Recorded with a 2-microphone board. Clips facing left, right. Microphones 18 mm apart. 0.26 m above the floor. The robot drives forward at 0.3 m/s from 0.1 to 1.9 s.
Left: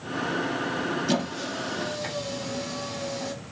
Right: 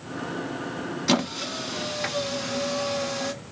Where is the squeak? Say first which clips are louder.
Right 3 dB; 75° right (ahead or behind), 0.6 m; by 3.3 s 65° right (ahead or behind), 0.7 m.